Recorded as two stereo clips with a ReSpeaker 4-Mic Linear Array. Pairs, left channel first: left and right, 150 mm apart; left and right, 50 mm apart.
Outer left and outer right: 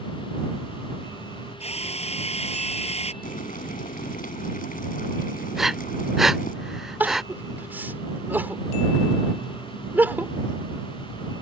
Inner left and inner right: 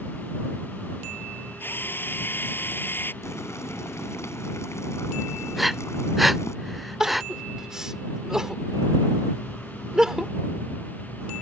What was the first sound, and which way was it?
A drill, 45° left (ahead or behind).